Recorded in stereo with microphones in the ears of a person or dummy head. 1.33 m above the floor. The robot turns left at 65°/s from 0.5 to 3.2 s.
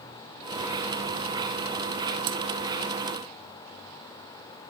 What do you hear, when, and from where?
2.3 s cutlery clinking: 55° right (ahead or behind), 0.7 m